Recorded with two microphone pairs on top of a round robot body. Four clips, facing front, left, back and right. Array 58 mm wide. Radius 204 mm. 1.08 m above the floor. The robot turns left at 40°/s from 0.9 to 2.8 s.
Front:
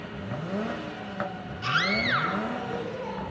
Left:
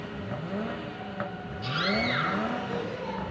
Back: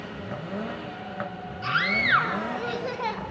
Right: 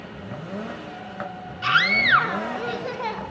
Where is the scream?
85° right, 3 m; by 3.2 s 135° right, 3 m.